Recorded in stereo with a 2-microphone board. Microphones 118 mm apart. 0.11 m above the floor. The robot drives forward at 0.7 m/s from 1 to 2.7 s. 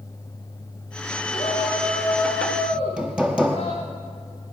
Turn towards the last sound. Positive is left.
turn(degrees=-10)  # may be behind; listen again after turning